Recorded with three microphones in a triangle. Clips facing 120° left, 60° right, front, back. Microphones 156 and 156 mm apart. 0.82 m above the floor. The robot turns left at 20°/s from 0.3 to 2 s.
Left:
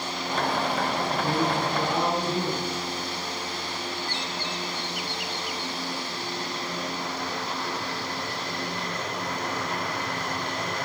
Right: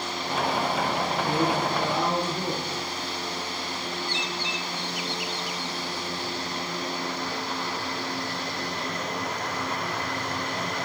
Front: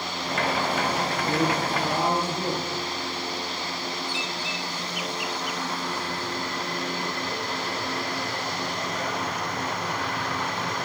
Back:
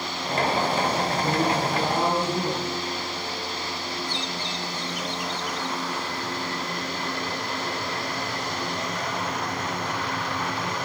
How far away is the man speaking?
About 6.5 m.